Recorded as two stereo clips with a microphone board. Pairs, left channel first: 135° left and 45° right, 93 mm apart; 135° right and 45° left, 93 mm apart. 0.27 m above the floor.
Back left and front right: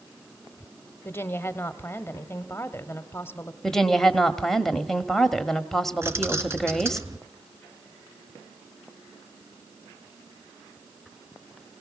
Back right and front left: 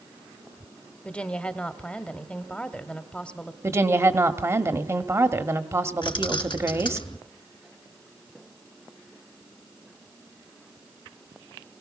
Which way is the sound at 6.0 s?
105° right.